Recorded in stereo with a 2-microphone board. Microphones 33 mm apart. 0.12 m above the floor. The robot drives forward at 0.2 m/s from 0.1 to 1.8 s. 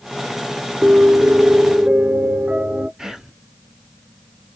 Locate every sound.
0.8 s a piano: 40° right (ahead or behind), 0.5 m; by 2.9 s 45° right (ahead or behind), 0.5 m
3.0 s whispering: 15° right (ahead or behind), 1.1 m